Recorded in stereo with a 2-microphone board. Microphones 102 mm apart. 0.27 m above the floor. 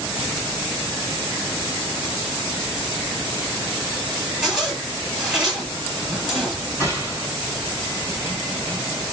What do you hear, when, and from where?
4.4 s a zipper: centre (ahead or behind), 1.7 m
6.8 s a gunshot: 30° left (ahead or behind), 2 m